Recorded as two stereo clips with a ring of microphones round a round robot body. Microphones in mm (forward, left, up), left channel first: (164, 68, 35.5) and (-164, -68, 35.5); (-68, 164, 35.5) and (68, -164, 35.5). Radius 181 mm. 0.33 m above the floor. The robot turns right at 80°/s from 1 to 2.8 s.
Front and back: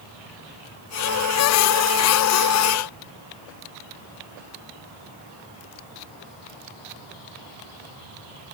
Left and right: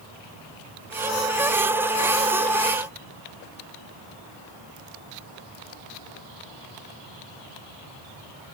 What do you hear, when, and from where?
Only background noise.